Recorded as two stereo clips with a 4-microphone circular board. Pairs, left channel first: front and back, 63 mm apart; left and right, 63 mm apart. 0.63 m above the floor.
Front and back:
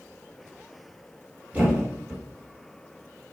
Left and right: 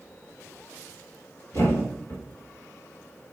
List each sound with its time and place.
1.5 s a thud: 115° left, 1.1 m